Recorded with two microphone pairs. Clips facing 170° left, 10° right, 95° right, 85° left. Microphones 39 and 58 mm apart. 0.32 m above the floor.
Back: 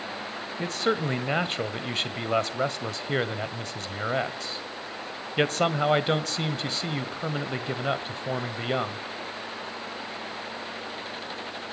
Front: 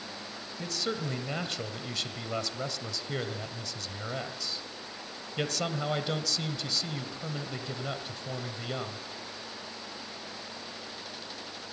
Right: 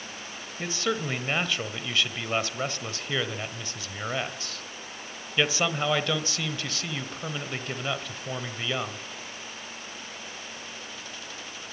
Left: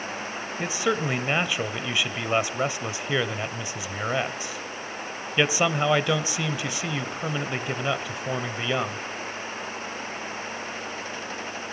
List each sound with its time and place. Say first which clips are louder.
0.6 s a man speaking: back 8 dB, left 3 dB; 150° left, 1.3 m